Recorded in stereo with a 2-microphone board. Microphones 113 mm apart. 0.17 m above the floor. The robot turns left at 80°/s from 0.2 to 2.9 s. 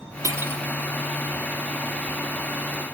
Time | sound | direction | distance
0.2 | cutlery clinking | 135° right | 1.1 m